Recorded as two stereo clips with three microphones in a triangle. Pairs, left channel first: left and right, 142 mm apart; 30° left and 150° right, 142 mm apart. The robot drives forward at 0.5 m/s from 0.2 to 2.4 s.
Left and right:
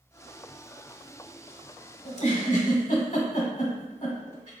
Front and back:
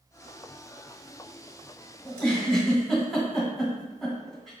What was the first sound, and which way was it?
A giggle, 110° left.